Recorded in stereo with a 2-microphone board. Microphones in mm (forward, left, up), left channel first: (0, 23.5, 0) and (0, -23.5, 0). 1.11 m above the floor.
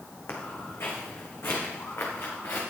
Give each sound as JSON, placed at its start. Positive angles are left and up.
{"t": 0.3, "sound": "footsteps", "side_deg": 60, "distance_m": 4.0}